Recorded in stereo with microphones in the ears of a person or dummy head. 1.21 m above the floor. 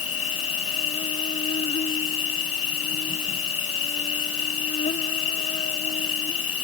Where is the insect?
35° left (ahead or behind).